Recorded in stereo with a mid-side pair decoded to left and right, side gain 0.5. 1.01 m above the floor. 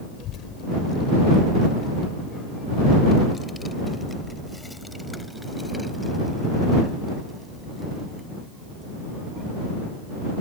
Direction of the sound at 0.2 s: 70° left.